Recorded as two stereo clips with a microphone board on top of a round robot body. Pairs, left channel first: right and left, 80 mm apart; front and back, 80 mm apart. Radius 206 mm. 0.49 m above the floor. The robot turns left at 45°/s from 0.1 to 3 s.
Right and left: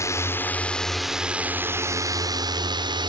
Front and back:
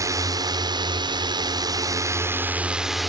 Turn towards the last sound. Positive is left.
turn(degrees=90)